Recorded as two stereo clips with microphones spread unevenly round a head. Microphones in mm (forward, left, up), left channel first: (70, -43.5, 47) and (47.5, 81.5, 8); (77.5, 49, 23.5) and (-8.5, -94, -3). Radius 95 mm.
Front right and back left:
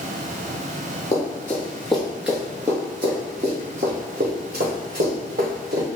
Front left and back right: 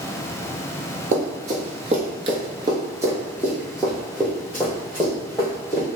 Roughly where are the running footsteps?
Right.